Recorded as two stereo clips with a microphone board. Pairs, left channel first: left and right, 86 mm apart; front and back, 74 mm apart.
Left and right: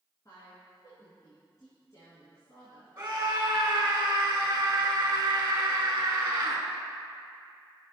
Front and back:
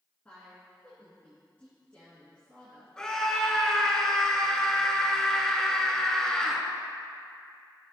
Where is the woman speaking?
60° left, 2.5 m.